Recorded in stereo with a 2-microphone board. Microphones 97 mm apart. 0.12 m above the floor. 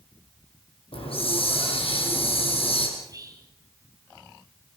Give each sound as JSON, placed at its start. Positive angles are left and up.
{"t": 0.9, "sound": "a hiss", "side_deg": 75, "distance_m": 5.0}
{"t": 3.0, "sound": "whispering", "side_deg": -40, "distance_m": 3.5}